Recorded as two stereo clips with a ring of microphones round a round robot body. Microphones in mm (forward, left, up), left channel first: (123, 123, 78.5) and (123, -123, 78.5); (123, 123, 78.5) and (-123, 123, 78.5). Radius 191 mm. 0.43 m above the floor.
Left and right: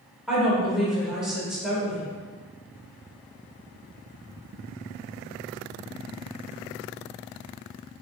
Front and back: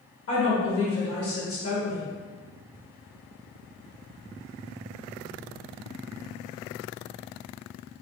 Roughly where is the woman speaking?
Ahead.